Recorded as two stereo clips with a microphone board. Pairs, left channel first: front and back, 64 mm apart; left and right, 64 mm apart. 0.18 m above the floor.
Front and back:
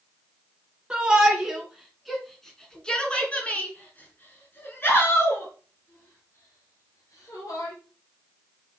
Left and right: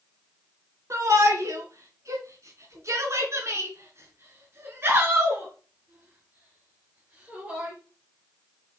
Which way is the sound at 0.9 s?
105° right.